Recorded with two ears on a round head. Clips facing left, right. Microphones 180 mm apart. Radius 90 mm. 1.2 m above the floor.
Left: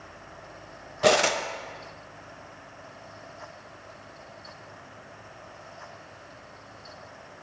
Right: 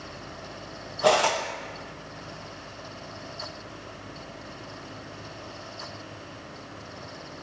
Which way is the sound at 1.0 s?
25° left (ahead or behind).